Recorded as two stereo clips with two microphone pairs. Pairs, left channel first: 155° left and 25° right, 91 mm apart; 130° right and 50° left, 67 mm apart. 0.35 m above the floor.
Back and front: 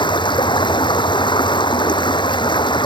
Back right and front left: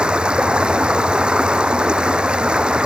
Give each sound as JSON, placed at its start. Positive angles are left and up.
{"t": 0.0, "sound": "running water", "azimuth_deg": 125}